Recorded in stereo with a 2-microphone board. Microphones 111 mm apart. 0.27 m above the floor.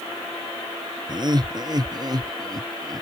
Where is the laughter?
40° right (ahead or behind); by 3.0 s 35° right (ahead or behind).